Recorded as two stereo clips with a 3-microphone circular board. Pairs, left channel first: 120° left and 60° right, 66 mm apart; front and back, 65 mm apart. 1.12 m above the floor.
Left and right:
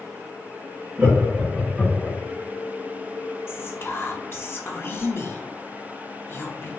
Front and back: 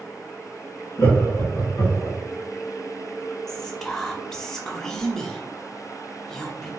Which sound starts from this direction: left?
Whispering, at 3.5 s.